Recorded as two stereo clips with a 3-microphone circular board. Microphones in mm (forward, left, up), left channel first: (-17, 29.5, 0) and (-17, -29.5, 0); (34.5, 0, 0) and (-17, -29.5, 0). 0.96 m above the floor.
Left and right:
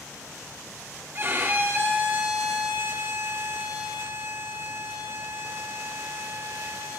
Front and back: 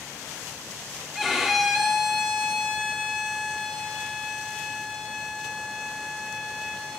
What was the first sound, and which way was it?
A violin, 60° right.